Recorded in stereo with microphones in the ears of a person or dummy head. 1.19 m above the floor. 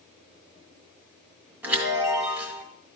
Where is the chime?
15° right (ahead or behind), 2 m.